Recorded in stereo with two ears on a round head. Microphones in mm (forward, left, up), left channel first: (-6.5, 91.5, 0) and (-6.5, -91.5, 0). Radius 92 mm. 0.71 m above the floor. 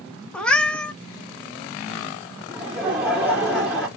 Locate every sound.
0.3 s a cat meowing: 5° left (ahead or behind), 0.6 m
2.5 s laughter: 5° right (ahead or behind), 0.5 m